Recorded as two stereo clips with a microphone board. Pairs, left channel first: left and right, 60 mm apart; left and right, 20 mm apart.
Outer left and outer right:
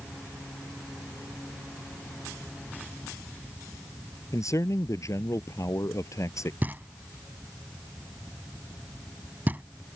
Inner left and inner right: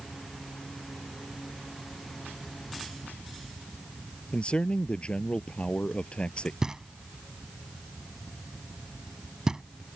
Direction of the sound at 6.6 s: 30° right (ahead or behind).